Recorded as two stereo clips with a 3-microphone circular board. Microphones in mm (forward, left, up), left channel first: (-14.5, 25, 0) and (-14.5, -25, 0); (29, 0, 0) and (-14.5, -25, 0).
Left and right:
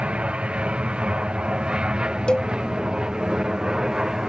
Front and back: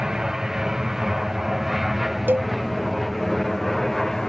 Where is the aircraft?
85° right; by 4.3 s 45° right.